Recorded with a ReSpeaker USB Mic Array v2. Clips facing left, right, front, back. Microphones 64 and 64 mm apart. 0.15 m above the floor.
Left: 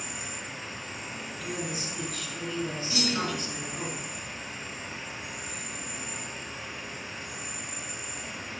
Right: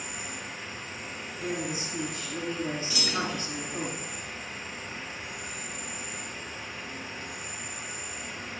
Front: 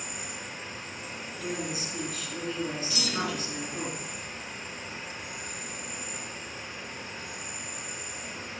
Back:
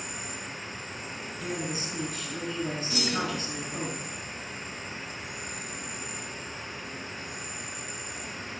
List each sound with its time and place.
0.0 s an insect: 170° left, 3 m
1.4 s a woman speaking: 145° right, 2.5 m
2.9 s a clunk: 145° left, 2.5 m